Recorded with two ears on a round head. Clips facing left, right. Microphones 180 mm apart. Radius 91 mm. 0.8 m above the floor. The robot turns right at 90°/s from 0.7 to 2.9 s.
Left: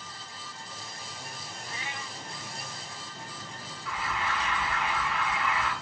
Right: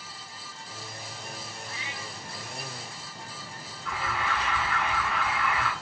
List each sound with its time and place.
1.7 s a cat meowing: 25° left, 0.9 m; by 2.2 s 70° left, 0.9 m
3.9 s an alarm: 50° right (ahead or behind), 8 m